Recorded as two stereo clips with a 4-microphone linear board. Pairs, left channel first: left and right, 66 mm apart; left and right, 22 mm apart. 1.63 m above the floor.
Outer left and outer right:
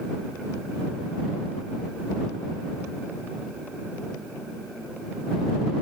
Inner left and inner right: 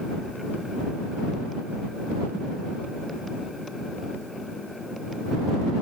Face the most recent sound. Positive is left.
No sound to turn to.